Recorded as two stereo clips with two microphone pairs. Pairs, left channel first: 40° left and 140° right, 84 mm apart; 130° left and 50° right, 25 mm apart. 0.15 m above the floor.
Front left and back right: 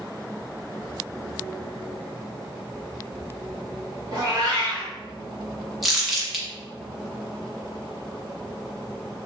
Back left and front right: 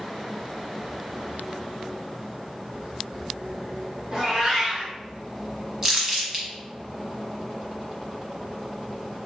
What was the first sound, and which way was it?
A cat meowing, 95° right.